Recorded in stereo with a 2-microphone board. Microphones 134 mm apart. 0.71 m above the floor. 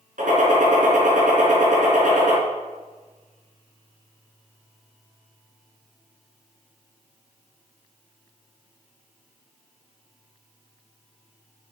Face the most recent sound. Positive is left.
turn(degrees=-75)  # may be behind; listen again after turning